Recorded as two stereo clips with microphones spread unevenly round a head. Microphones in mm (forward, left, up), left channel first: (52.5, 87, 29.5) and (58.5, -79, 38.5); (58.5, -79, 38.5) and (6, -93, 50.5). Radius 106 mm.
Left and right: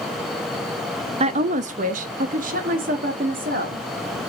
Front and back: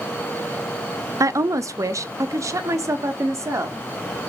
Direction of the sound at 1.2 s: 140° right.